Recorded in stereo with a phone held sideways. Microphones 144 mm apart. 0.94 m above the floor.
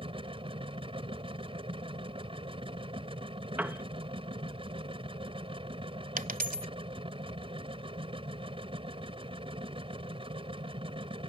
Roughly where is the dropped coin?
Right.